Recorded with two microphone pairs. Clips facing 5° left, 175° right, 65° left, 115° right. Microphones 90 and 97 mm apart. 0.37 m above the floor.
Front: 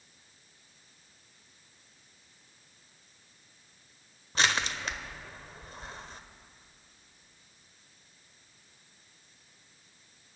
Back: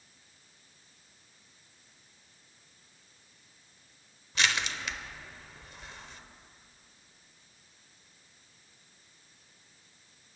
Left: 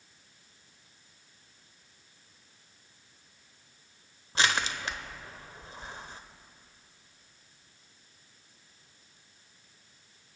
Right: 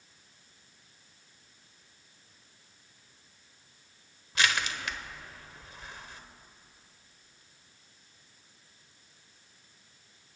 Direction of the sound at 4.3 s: 25° left.